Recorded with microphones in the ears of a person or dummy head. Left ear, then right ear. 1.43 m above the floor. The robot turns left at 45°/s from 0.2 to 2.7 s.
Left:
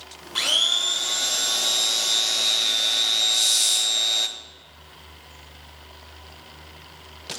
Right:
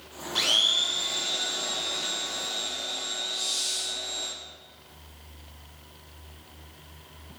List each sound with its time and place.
0.3 s a blender: 160° left, 0.8 m; by 4.3 s 55° left, 0.8 m
3.3 s a hiss: 70° left (ahead or behind), 1.8 m